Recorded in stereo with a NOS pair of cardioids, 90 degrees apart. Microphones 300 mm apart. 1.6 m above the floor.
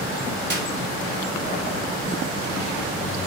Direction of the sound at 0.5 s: 35° right.